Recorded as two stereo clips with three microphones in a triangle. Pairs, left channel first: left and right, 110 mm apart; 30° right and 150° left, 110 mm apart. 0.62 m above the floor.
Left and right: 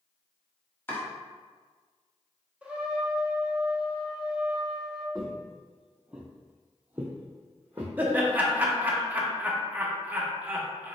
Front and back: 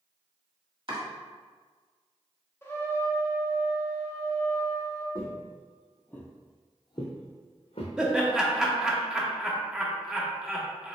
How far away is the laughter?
About 0.6 m.